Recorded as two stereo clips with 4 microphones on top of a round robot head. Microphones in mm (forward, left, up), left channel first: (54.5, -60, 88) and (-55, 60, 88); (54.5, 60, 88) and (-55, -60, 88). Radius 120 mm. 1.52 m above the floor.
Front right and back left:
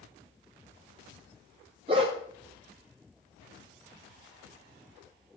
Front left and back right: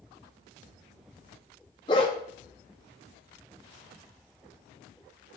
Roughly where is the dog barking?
Left.